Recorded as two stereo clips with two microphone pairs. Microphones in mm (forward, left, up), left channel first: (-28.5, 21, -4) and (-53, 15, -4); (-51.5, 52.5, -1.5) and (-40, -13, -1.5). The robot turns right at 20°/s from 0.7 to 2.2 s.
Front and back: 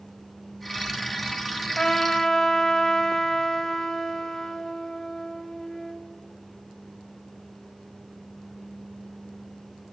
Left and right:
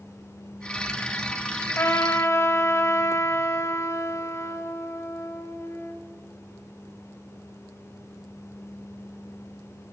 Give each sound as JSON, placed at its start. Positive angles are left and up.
{"t": 1.8, "sound": "a trumpet", "azimuth_deg": 75, "distance_m": 1.1}